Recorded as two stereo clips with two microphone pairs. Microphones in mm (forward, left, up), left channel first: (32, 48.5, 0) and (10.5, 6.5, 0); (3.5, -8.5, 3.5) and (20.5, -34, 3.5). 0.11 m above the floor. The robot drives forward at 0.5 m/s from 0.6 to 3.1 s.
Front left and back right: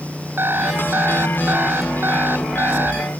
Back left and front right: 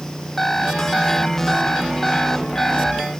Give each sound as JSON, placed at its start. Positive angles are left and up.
{"t": 0.4, "sound": "an alarm clock", "azimuth_deg": -155}